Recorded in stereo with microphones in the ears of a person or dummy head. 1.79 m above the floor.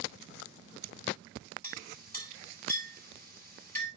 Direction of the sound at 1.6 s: 10° left (ahead or behind).